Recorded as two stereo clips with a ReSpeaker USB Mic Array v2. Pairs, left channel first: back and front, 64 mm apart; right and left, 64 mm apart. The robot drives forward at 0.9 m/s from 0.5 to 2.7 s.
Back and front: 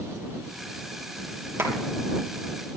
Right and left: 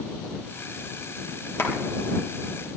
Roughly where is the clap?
Ahead right.